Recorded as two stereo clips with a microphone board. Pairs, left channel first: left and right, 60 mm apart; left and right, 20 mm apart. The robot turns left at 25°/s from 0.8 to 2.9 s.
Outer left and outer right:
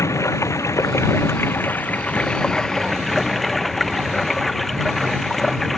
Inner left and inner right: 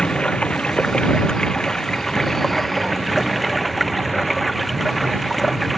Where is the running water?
55° left; by 5.8 s 5° left.